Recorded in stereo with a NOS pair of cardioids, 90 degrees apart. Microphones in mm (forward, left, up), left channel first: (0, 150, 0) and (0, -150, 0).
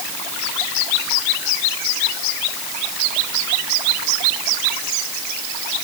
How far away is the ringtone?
No ringtone in this recording.